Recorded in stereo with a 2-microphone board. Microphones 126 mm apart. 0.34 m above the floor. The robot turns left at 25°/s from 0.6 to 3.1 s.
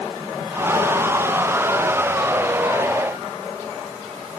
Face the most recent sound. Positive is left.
No sound to turn to.